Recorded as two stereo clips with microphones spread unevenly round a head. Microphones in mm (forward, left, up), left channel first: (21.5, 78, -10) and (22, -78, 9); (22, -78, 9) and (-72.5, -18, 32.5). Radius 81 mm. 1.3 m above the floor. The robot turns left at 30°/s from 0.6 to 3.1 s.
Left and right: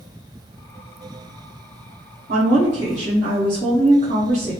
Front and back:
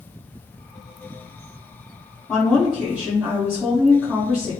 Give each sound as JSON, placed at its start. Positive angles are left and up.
{"t": 2.3, "sound": "a woman speaking", "azimuth_deg": -105, "distance_m": 1.8}